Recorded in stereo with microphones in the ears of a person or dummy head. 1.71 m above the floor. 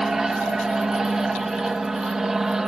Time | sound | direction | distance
0.0 | an aircraft | 5° right (ahead or behind) | ?